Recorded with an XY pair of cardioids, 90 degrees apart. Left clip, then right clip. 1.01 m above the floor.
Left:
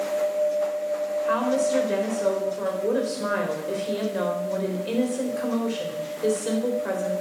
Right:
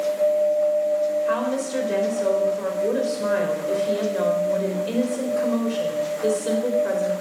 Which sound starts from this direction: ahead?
A woman speaking, at 1.3 s.